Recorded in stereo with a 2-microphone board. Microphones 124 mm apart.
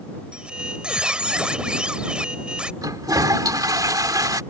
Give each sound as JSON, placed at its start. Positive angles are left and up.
{"t": 0.3, "sound": "a squeak", "side_deg": -5}
{"t": 2.8, "sound": "a toilet flushing", "side_deg": -30}